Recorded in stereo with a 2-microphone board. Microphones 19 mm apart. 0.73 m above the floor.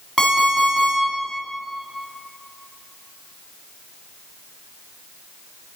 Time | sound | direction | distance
0.2 | an alarm clock | 5° right (ahead or behind) | 3.5 m